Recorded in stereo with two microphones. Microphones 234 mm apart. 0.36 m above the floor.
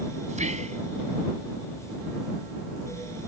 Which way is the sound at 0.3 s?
30° right (ahead or behind).